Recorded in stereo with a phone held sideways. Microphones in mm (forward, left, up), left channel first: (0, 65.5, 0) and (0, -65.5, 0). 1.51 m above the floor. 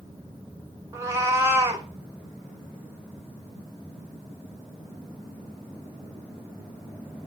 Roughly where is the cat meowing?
Right.